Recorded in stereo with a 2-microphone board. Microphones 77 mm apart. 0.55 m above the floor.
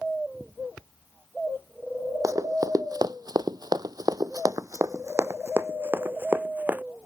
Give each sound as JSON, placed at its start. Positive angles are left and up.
{"t": 2.2, "sound": "running footsteps", "side_deg": -50}